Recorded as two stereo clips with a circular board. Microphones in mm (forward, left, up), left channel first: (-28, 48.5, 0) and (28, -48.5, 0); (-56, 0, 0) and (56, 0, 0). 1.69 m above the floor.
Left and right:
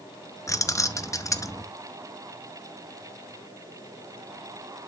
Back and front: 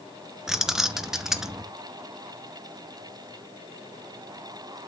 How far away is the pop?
I don't hear a pop.